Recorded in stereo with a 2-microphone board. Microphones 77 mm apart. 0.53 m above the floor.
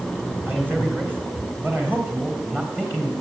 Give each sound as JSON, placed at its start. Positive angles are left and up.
{"t": 0.5, "sound": "a man speaking", "side_deg": -25, "distance_m": 3.5}